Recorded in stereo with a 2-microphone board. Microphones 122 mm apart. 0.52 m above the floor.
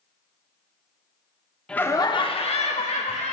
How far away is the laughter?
About 0.6 m.